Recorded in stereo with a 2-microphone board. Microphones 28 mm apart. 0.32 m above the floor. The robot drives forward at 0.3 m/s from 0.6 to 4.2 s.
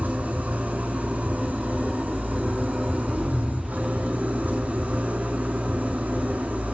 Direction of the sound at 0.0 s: 80° right.